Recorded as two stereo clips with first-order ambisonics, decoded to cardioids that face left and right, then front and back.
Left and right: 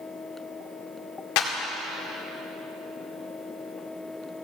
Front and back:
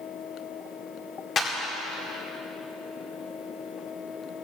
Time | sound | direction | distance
1.4 | a clap | 70° left | 2 m